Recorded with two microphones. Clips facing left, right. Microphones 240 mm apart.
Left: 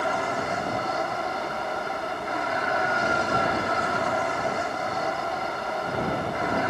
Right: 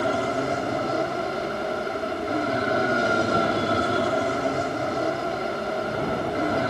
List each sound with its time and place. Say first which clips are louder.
0.0 s an aircraft: right 4 dB; 35° right (ahead or behind)